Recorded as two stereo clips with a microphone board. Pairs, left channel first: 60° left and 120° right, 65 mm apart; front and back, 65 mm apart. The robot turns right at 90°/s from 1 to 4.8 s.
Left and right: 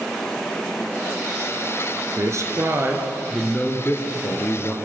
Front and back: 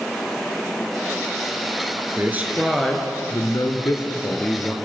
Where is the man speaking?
140° right, 2.5 m; by 4.7 s 90° left, 2.5 m.